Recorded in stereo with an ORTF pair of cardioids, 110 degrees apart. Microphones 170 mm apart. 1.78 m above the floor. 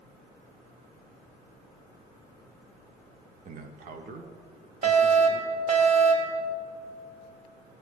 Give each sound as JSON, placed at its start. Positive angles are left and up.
{"t": 3.5, "sound": "a man speaking", "azimuth_deg": -50, "distance_m": 1.1}
{"t": 4.8, "sound": "a fire alarm", "azimuth_deg": -45, "distance_m": 1.7}